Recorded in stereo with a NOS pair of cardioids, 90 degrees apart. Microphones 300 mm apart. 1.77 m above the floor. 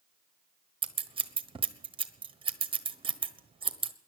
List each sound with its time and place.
0.8 s scissors: 20° right, 1.2 m